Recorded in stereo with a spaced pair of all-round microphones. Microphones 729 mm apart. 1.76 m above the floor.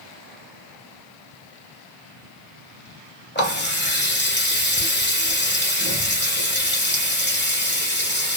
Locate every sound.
3.4 s a running tap: 15° left (ahead or behind), 0.9 m